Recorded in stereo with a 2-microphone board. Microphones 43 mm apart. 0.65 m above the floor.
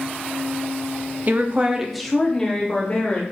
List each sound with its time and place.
1.3 s a woman speaking: 45° right (ahead or behind), 0.7 m; by 3.2 s 30° left (ahead or behind), 1.8 m